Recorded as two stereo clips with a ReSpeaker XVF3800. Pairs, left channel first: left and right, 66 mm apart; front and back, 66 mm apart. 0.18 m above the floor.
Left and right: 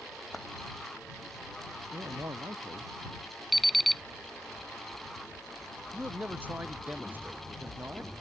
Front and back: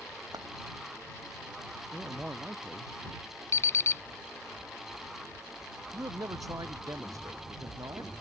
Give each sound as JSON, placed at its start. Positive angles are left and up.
{"t": 0.3, "sound": "scissors", "azimuth_deg": 180}
{"t": 1.9, "sound": "a man speaking", "azimuth_deg": -115}
{"t": 3.5, "sound": "an alarm clock", "azimuth_deg": 0}
{"t": 5.9, "sound": "a man speaking", "azimuth_deg": -155}